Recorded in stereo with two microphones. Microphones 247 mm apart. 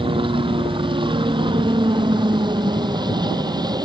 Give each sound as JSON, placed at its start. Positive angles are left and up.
{"t": 0.0, "sound": "a helicopter", "side_deg": -20}